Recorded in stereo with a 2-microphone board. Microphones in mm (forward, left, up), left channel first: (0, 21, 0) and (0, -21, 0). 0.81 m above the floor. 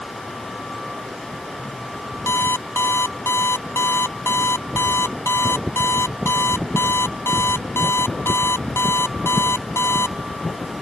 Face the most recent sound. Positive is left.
turn(degrees=75)  # may be behind; listen again after turning